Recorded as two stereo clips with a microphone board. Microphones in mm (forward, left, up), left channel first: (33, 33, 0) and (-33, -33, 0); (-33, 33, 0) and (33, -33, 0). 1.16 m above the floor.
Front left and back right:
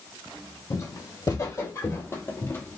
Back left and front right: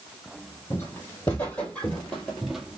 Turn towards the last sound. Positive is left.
turn(degrees=25)